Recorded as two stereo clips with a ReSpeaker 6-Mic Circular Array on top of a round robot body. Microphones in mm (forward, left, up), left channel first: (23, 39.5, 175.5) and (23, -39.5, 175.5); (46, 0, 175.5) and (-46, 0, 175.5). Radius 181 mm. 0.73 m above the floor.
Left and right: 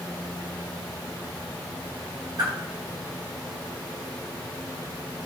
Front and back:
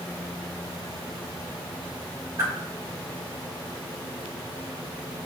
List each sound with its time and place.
2.4 s a whoosh: 130° right, 2.5 m